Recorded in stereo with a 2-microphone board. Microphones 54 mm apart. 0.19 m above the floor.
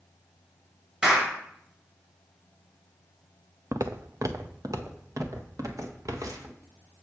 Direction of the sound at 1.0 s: 20° right (ahead or behind).